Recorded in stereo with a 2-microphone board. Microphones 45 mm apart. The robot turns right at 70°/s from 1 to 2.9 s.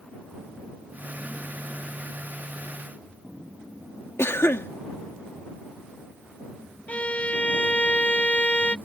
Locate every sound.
4.2 s a cough: 75° left (ahead or behind)
6.9 s a violin: 35° left (ahead or behind)